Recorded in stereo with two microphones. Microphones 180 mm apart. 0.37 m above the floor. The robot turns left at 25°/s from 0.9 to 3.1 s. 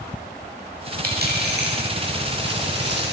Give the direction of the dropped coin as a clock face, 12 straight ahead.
2 o'clock.